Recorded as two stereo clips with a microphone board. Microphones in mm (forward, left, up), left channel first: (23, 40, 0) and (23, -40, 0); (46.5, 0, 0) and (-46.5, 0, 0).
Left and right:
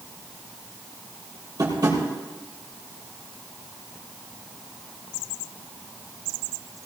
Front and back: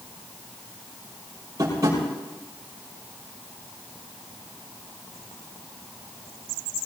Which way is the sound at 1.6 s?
125° right.